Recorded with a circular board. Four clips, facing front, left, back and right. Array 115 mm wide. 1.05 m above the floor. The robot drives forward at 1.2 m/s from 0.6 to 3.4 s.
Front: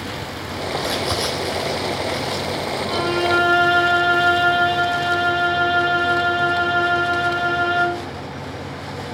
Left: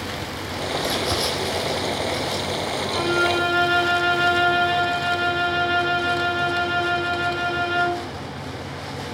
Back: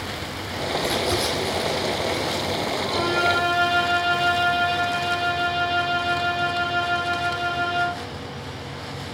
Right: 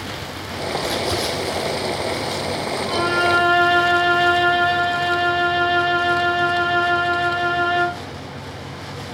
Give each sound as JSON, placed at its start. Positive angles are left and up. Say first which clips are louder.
{"t": 0.8, "sound": "crumpling", "louder": "right 2 dB, even", "azimuth_deg": 5, "distance_m": 9.5}
{"t": 2.9, "sound": "a violin", "louder": "right 3 dB, front 3 dB", "azimuth_deg": -65, "distance_m": 3.5}